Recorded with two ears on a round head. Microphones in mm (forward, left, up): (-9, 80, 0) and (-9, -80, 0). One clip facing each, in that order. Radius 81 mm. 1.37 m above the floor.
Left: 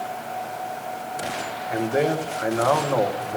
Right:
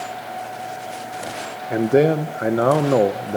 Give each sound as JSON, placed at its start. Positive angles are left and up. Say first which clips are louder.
{"t": 1.7, "sound": "a man speaking", "louder": "right 6 dB", "side_deg": -45, "distance_m": 0.7}